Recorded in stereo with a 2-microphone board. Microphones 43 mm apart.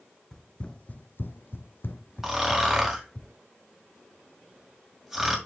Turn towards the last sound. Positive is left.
turn(degrees=-5)  # may be behind; listen again after turning